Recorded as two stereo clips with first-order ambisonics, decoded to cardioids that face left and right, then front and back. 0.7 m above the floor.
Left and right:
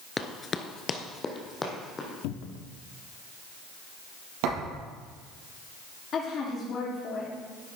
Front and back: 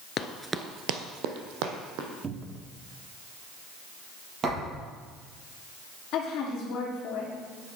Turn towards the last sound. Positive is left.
turn(degrees=35)